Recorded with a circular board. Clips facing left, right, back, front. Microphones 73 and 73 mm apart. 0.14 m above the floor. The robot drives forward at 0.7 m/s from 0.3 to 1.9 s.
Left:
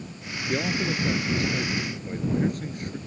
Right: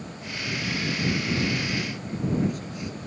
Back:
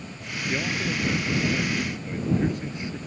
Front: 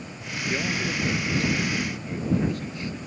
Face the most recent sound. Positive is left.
turn(degrees=115)